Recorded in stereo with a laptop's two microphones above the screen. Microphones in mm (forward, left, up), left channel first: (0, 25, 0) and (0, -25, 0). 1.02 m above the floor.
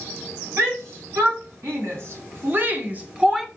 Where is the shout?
70° right (ahead or behind), 1.9 m; by 3.5 s 10° right (ahead or behind), 0.8 m.